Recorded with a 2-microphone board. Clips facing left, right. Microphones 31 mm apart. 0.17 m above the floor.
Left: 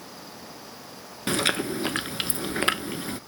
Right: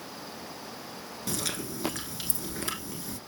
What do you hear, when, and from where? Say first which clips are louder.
1.3 s chewing: left 10 dB; 50° left (ahead or behind), 0.8 m